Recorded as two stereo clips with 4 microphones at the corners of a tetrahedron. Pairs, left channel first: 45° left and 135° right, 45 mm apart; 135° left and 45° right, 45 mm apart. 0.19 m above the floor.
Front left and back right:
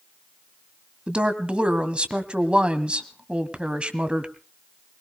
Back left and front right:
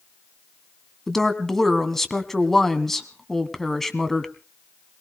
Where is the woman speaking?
150° right, 1.7 m.